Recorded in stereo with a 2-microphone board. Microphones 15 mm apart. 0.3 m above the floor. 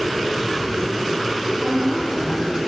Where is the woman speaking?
15° right (ahead or behind), 3 m.